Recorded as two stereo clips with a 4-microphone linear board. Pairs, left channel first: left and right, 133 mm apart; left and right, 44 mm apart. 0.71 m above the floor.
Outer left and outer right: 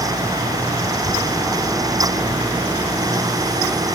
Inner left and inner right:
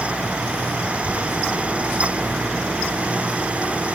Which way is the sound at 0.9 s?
35° right (ahead or behind).